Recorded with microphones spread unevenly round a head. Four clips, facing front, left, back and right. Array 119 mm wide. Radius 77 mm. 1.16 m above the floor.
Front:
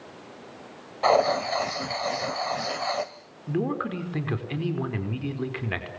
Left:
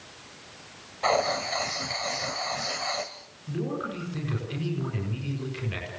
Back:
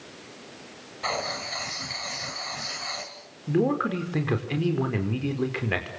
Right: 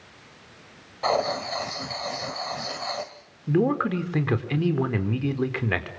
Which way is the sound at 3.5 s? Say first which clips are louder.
Right 9 dB, back 4 dB; 120° right.